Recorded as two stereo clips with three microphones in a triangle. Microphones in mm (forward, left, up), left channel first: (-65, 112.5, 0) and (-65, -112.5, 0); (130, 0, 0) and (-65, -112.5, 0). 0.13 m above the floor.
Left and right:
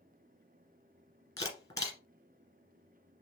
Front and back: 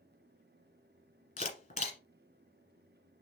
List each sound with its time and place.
1.4 s a camera shutter: 30° left, 1.4 m